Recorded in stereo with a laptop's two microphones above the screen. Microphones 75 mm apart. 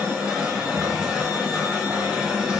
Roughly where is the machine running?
Centre.